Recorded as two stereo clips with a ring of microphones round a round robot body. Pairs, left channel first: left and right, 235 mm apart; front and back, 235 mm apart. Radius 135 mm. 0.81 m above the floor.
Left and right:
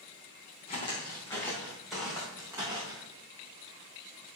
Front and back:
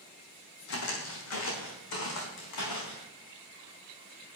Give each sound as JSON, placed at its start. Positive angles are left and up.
{"t": 0.7, "sound": "footsteps", "azimuth_deg": 20, "distance_m": 2.0}